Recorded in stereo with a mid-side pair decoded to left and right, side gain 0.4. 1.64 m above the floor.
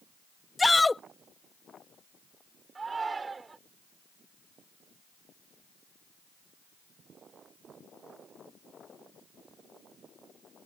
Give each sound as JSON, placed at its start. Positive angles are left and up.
{"t": 0.6, "sound": "a shout", "azimuth_deg": 25}
{"t": 2.8, "sound": "a shout", "azimuth_deg": -35}